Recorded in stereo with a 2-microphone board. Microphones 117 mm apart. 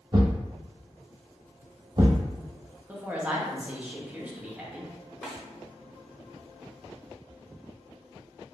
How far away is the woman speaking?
About 0.8 m.